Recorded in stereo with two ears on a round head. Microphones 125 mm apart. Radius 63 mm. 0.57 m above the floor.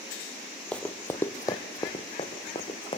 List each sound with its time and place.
0.7 s running footsteps: 5° left (ahead or behind), 1.0 m; by 3.0 s 40° left (ahead or behind), 2.5 m